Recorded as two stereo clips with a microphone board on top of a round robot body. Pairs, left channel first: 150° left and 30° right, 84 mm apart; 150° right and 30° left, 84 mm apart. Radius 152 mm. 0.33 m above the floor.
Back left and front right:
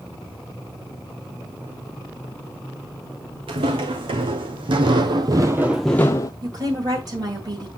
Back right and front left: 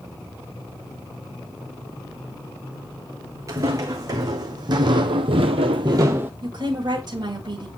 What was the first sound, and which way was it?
Footsteps, 20° right.